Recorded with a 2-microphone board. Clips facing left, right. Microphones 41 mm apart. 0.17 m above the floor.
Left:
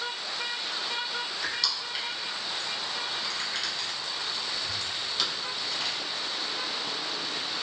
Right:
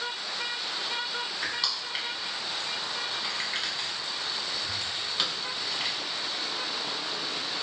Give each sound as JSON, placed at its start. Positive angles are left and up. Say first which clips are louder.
{"t": 1.4, "sound": "crushing", "louder": "even", "side_deg": -20, "distance_m": 0.8}